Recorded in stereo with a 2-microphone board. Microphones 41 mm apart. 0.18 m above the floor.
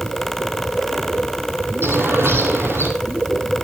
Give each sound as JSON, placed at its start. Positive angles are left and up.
{"t": 1.8, "sound": "a bird", "side_deg": -75, "distance_m": 5.5}